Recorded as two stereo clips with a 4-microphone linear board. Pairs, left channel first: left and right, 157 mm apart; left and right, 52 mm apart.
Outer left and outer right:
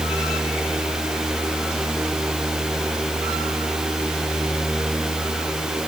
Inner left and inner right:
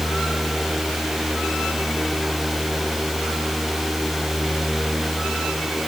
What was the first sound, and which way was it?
Only background noise.